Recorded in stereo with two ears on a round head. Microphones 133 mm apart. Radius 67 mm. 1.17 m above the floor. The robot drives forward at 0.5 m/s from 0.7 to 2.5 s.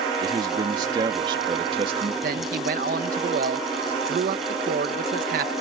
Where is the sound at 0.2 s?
30° right (ahead or behind); by 2.1 s 40° right (ahead or behind).